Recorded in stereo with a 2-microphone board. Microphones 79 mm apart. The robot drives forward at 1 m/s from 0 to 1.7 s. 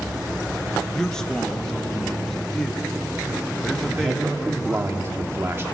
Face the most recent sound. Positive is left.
turn(degrees=-30)  # may be behind; listen again after turning